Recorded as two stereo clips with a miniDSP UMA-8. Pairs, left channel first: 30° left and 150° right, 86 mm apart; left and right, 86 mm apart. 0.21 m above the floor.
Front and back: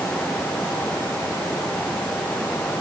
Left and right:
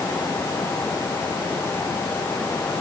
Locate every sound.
Only background noise.